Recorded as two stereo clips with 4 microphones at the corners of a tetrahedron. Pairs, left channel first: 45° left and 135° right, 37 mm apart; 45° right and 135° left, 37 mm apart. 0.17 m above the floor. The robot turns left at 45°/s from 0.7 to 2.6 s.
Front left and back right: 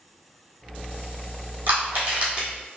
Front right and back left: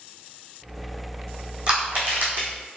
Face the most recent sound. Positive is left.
turn(degrees=150)